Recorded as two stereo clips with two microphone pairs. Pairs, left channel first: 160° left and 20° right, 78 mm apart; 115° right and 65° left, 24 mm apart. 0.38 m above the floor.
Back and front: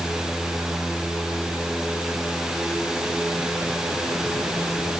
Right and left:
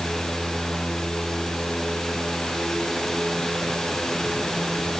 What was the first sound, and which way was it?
Only background noise.